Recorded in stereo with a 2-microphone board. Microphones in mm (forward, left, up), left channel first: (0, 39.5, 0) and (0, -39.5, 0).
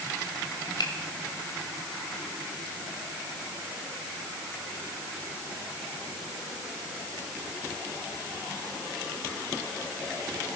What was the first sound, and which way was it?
A finger snap, 80° left.